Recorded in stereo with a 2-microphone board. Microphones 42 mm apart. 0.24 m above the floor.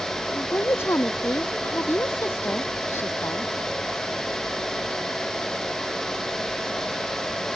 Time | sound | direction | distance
0.3 | a woman speaking | 65° left (ahead or behind) | ?